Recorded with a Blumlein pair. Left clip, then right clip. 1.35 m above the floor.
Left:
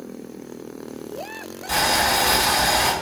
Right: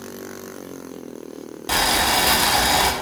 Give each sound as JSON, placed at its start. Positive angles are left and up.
{"t": 1.7, "sound": "boiling", "azimuth_deg": -25, "distance_m": 0.5}